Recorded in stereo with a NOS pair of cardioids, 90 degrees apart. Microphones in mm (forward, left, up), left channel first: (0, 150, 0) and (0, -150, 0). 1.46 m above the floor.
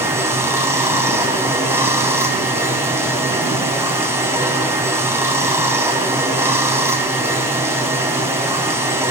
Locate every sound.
0.0 s running water: 10° right, 4.5 m